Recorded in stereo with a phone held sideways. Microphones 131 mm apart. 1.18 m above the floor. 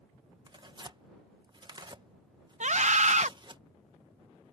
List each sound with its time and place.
0.5 s tearing paper: 35° right (ahead or behind)
2.6 s a scream: 65° right (ahead or behind)